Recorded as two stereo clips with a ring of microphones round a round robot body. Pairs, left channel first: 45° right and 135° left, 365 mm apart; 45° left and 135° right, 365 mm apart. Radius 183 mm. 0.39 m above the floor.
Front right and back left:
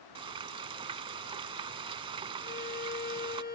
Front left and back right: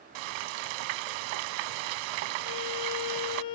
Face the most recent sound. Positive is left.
turn(degrees=20)